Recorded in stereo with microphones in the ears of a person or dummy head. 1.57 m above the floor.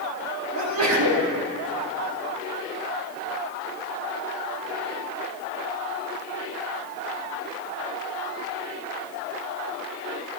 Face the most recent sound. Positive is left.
turn(degrees=-80)